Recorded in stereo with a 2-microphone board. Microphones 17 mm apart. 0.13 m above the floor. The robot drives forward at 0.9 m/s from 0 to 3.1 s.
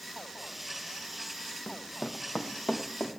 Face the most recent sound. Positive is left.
turn(degrees=65)  # may be behind; listen again after turning